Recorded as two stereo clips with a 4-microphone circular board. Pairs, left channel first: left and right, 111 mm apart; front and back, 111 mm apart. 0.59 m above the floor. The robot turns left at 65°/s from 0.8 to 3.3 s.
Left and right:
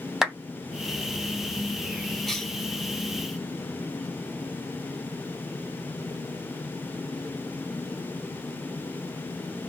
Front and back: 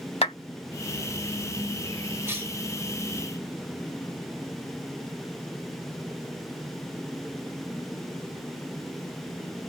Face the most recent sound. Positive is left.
turn(degrees=105)